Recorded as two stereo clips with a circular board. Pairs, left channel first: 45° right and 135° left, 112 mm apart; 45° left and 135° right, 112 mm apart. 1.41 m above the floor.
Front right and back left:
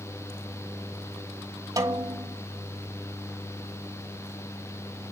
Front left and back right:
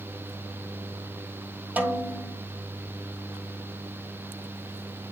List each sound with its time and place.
1.8 s a snare drum: 160° left, 1.3 m